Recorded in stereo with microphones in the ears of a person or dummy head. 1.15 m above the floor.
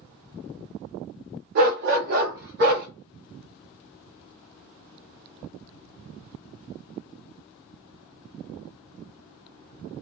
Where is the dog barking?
40° right (ahead or behind), 0.7 m; by 2.9 s 45° right (ahead or behind), 1.0 m.